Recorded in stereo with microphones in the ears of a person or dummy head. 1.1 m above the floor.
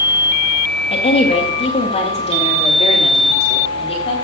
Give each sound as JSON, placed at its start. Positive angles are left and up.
{"t": 0.9, "sound": "a woman speaking", "side_deg": 35, "distance_m": 2.0}